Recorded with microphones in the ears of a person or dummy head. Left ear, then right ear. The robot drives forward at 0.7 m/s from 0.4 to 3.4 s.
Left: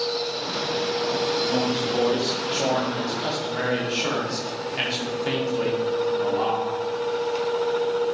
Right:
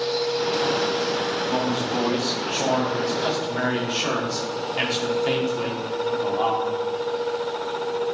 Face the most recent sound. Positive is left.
turn(degrees=0)  # may be behind; listen again after turning